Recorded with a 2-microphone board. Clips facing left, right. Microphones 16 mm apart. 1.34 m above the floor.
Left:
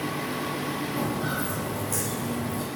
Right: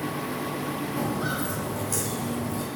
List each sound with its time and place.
1.0 s footsteps: 15° right (ahead or behind), 3 m; by 2.7 s 10° right (ahead or behind), 1.3 m